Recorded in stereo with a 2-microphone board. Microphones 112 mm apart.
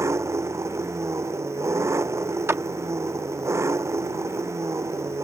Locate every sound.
0.0 s an engine running: 25° right (ahead or behind)
2.5 s a clap: 20° right (ahead or behind)